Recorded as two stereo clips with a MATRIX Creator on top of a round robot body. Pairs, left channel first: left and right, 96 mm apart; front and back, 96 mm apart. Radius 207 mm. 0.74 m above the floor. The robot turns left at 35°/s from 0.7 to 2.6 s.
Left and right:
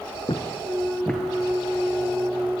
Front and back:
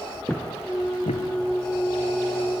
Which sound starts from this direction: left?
Footsteps, at 0.3 s.